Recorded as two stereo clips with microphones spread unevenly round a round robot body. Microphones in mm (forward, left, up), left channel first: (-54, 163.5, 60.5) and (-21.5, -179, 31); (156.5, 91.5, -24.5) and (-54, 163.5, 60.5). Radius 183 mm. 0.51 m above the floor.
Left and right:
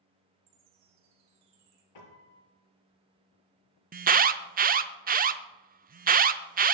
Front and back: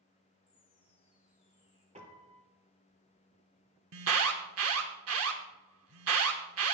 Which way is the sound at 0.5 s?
90° right.